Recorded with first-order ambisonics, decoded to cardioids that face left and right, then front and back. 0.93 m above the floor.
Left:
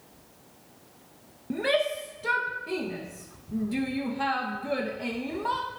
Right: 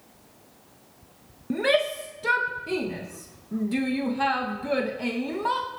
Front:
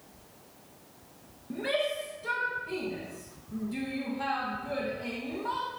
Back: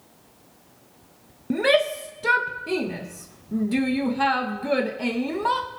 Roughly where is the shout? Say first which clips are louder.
Right 3 dB, back 10 dB; behind.